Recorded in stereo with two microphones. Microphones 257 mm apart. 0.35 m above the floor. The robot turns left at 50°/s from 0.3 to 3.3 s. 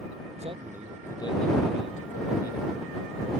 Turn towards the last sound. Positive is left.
turn(degrees=60)